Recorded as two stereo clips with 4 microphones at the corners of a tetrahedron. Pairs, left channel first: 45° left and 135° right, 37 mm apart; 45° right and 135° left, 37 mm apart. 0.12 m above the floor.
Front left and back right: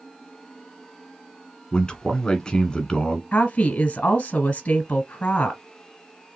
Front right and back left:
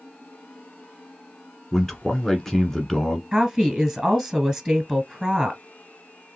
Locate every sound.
1.7 s a man speaking: 10° left, 1.4 m
3.3 s a woman speaking: 75° left, 1.2 m